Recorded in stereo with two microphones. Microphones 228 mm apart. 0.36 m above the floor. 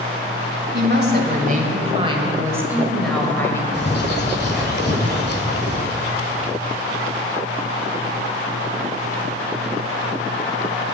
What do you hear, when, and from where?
0.7 s a woman speaking: 45° right (ahead or behind), 1.8 m; by 3.6 s 10° left (ahead or behind), 1.7 m
3.7 s a bird: 45° left (ahead or behind), 1.4 m